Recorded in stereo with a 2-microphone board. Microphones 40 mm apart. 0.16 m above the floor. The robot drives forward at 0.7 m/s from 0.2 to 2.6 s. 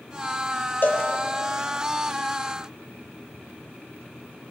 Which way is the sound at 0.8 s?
55° left (ahead or behind).